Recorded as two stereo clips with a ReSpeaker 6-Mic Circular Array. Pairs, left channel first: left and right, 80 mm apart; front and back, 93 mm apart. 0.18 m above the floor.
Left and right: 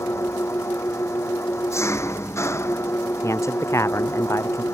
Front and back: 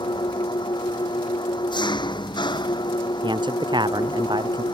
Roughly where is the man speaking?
Behind left.